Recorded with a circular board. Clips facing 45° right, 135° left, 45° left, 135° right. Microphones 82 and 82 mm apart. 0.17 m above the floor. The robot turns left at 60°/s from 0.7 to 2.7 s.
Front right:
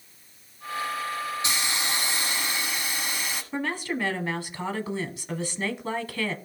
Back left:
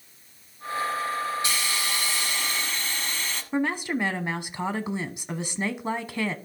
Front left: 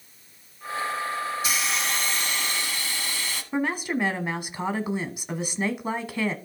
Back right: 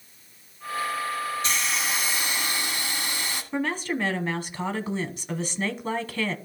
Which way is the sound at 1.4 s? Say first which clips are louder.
Even, even; 30° right.